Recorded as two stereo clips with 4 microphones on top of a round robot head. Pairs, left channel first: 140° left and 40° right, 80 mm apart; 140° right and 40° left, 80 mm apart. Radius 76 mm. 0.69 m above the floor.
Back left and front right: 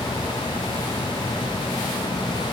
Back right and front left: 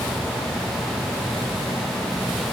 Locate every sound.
Only background noise.